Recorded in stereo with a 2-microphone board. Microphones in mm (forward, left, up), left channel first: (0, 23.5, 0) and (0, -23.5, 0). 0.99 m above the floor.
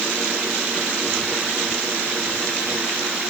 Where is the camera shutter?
No camera shutter in this recording.